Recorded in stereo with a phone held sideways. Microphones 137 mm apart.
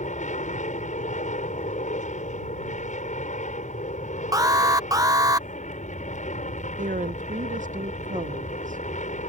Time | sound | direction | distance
0.0 | an aircraft | 65° left (ahead or behind) | ?
4.3 | an alarm | 25° right (ahead or behind) | ?
6.8 | a woman speaking | 70° right (ahead or behind) | ?